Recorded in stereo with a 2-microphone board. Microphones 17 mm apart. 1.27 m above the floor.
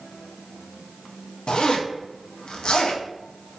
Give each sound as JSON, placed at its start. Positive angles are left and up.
{"t": 1.5, "sound": "a zipper", "side_deg": 55, "distance_m": 0.6}